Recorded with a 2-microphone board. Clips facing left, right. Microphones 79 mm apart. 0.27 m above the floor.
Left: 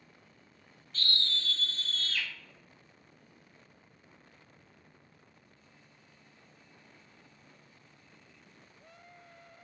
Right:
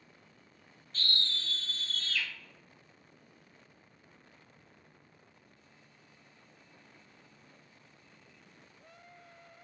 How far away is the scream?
About 1.2 m.